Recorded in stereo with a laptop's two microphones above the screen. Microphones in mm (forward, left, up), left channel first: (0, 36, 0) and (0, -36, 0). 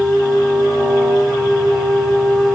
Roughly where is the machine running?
Centre.